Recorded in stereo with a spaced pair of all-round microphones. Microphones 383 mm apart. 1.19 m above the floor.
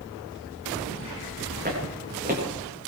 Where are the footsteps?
25° right (ahead or behind), 8.5 m.